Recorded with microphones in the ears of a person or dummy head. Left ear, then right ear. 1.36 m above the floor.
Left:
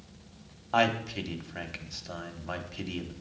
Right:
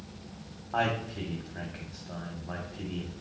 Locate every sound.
0.7 s a man speaking: 80° left, 1.0 m